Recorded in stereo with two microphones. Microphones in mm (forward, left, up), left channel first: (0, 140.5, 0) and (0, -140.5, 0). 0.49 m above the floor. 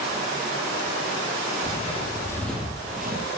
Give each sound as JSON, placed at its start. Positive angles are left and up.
{"t": 1.6, "sound": "footsteps", "side_deg": 25, "distance_m": 1.3}